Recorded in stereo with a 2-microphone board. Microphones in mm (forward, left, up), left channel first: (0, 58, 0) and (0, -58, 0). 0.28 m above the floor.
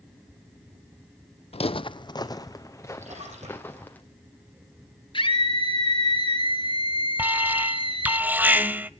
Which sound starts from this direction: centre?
An alarm, at 7.2 s.